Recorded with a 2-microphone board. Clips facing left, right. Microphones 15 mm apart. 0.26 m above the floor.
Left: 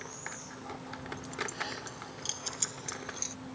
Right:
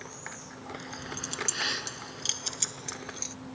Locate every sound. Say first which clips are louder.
0.7 s keys jangling: right 6 dB; 70° right (ahead or behind); by 3.4 s centre (ahead or behind)